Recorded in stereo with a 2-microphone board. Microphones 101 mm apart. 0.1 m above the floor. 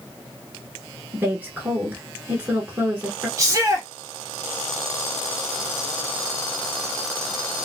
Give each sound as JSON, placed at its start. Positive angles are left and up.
{"t": 1.1, "sound": "a woman speaking", "side_deg": -20, "distance_m": 1.1}
{"t": 3.4, "sound": "a shout", "side_deg": -35, "distance_m": 1.5}